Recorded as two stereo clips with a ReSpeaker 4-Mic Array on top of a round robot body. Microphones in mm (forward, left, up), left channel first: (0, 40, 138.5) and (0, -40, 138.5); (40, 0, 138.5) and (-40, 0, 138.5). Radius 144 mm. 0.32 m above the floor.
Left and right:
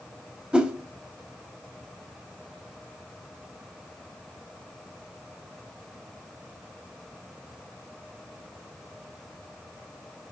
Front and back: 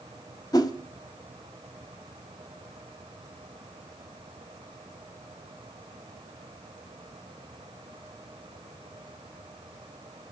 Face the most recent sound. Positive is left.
turn(degrees=-20)